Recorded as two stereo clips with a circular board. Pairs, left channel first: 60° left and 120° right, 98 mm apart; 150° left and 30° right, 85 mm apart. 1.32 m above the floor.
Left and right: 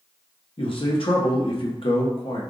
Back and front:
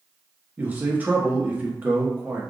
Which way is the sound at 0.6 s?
40° left.